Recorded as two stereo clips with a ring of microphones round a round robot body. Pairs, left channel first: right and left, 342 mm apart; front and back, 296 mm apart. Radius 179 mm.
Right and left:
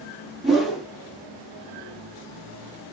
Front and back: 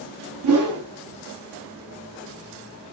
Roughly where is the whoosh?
Behind.